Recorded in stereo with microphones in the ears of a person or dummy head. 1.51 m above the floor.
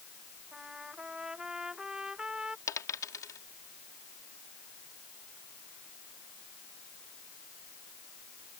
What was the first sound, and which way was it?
A trumpet, centre (ahead or behind).